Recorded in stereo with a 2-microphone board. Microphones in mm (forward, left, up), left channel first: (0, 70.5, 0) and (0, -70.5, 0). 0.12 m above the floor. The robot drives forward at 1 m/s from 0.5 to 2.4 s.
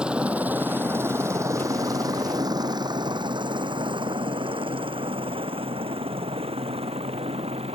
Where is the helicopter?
5° right (ahead or behind); by 7.8 s 45° right (ahead or behind).